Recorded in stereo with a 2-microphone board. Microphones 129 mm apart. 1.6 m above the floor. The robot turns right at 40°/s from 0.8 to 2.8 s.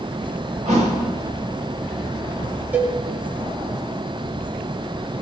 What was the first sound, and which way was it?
A thud, 70° right (ahead or behind).